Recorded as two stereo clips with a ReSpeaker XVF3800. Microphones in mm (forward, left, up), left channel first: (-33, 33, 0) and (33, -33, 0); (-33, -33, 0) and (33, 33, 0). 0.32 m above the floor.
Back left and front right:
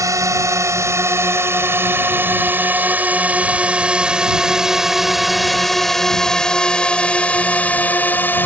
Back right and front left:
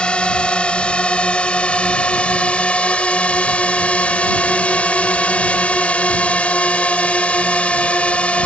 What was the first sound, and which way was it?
A drone, 65° right.